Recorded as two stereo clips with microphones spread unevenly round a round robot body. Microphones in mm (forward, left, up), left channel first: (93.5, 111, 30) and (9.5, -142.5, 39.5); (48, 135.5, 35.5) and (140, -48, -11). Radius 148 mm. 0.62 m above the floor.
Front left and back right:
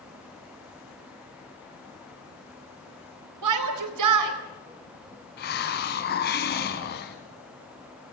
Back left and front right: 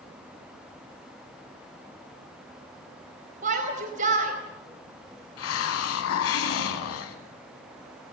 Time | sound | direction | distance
3.4 | a shout | 120° right | 4 m
5.4 | a hiss | 130° left | 1.7 m